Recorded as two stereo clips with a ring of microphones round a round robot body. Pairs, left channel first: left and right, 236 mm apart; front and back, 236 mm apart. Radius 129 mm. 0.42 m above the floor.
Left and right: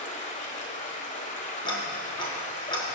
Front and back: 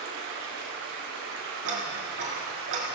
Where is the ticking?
160° left, 2.5 m.